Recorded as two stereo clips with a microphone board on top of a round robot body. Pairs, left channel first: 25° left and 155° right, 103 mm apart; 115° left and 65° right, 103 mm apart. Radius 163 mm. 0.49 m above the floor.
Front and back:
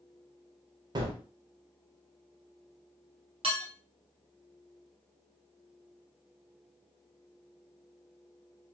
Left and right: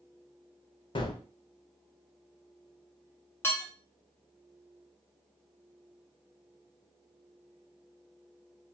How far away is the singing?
No singing in this recording.